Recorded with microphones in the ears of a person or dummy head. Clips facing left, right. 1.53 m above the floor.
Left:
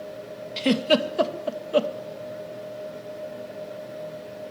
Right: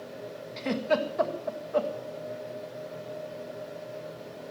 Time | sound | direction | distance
0.6 | a giggle | 45° left (ahead or behind) | 2 m